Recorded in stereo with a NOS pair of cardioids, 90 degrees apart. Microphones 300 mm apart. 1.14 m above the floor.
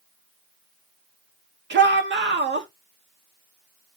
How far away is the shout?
About 2.5 m.